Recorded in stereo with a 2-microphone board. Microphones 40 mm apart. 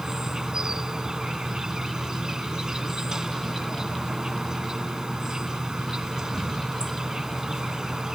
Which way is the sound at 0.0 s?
20° right (ahead or behind).